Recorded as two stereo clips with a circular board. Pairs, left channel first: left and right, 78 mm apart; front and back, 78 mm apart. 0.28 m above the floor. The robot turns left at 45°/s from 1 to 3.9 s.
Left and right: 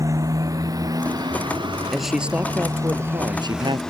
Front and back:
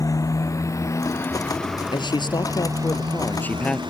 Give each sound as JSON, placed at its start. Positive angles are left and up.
{"t": 0.0, "sound": "a motorcycle", "azimuth_deg": -40}
{"t": 1.9, "sound": "a man speaking", "azimuth_deg": 5}